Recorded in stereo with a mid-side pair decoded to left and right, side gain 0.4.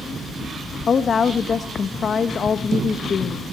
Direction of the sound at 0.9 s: 50° left.